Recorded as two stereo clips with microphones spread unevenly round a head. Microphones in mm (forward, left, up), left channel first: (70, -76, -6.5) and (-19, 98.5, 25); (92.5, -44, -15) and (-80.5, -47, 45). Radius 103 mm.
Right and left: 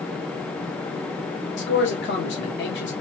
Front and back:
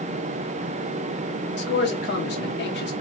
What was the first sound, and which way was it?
A man speaking, 30° right.